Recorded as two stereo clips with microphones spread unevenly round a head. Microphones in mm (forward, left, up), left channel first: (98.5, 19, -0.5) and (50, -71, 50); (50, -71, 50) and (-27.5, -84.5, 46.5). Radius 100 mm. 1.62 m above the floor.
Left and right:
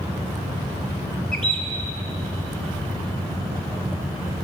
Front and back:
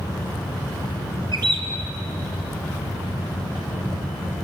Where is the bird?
175° left, 1.3 m.